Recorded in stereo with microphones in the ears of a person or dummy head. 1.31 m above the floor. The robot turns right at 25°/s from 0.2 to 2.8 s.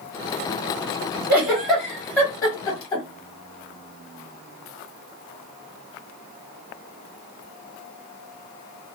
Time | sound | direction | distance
1.3 | a giggle | 15° right (ahead or behind) | 1.4 m